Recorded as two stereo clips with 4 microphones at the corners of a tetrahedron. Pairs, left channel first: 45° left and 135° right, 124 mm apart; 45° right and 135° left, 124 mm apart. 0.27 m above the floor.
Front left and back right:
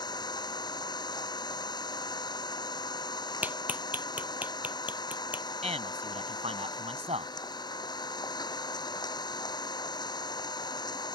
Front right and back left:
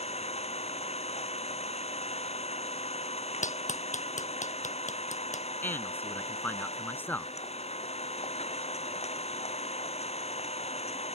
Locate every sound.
0.0 s an engine running: 10° right
3.4 s a clap: 60° right
5.6 s a man speaking: 115° right